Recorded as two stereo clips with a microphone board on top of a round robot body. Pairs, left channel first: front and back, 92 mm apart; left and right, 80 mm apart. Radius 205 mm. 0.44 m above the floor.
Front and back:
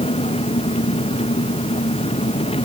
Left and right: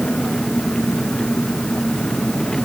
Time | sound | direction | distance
0.0 | an engine running | 10° left | ?